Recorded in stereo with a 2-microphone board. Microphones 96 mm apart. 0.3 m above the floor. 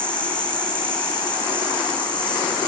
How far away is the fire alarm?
No fire alarm in this recording.